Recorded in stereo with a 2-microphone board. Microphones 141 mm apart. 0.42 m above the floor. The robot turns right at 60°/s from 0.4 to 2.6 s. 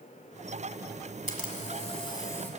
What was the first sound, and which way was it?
A camera shutter, 95° left.